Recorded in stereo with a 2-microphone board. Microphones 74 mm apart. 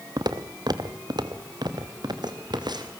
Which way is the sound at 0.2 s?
70° right (ahead or behind).